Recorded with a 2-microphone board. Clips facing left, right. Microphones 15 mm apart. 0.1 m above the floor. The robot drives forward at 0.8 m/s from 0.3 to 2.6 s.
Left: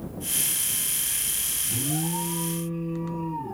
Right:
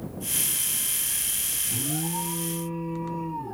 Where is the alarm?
15° right (ahead or behind), 1.9 m; by 3.6 s 10° right (ahead or behind), 2.5 m.